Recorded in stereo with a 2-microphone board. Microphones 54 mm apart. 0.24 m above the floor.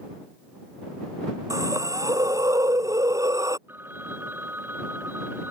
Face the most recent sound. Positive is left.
turn(degrees=-40)  # may be behind; listen again after turning